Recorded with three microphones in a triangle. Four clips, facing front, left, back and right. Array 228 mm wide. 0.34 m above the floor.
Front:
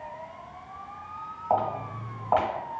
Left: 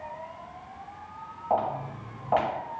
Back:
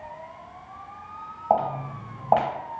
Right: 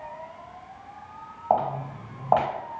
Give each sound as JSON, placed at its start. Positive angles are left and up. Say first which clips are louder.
{"t": 1.5, "sound": "footsteps", "louder": "right 3 dB, back 3 dB", "azimuth_deg": -155, "distance_m": 1.6}